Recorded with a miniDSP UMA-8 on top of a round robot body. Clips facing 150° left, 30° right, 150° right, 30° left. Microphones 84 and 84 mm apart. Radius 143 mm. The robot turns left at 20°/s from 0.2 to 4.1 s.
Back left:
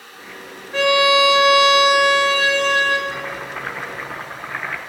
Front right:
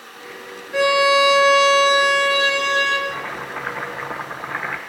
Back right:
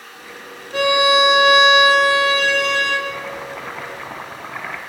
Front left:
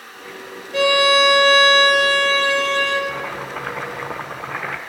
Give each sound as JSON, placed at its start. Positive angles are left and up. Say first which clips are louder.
{"t": 0.7, "sound": "a violin", "louder": "even, even", "azimuth_deg": -115, "distance_m": 3.0}
{"t": 3.1, "sound": "chopping", "louder": "even, front left 1 dB", "azimuth_deg": 65, "distance_m": 0.9}